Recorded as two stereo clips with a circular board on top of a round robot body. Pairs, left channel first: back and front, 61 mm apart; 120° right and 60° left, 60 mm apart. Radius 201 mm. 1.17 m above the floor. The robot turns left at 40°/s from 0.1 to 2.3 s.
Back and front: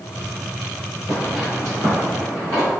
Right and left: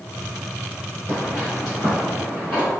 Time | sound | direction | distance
1.1 | footsteps | 170° right | 1.4 m